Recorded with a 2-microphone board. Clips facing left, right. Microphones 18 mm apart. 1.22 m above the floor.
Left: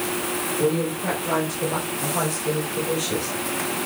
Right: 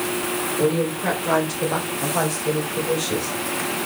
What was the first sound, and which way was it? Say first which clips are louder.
A woman speaking: right 2 dB; 40° right (ahead or behind).